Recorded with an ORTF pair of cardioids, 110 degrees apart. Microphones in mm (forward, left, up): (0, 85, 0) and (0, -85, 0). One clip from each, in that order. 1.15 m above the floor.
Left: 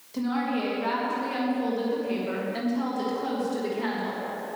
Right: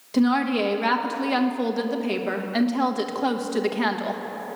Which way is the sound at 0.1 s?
60° right.